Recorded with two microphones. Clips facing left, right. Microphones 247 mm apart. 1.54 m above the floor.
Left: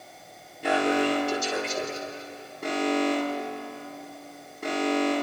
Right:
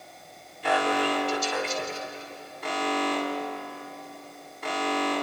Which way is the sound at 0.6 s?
50° left (ahead or behind).